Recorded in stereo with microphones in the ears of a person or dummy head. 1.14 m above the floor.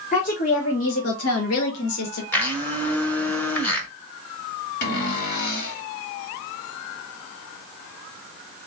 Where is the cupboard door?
60° left (ahead or behind), 1.6 m.